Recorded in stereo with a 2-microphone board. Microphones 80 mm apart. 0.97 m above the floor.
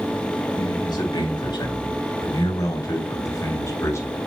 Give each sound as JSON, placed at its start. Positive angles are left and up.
{"t": 0.6, "sound": "a man speaking", "side_deg": 60, "distance_m": 2.5}